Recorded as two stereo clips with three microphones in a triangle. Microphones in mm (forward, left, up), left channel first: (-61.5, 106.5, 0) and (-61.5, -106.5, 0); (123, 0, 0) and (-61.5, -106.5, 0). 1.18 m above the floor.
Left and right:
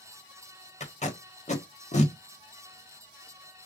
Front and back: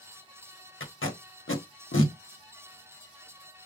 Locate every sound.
0.8 s tape being pulled: 35° left, 1.1 m